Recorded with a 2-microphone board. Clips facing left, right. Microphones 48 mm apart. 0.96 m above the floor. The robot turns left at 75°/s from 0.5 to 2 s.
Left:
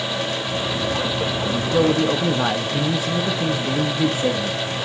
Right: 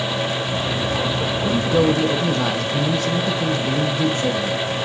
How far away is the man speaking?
About 0.7 m.